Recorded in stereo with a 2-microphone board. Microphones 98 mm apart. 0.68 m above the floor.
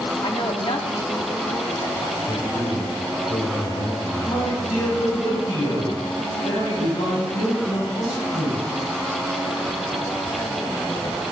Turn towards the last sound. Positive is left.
turn(degrees=80)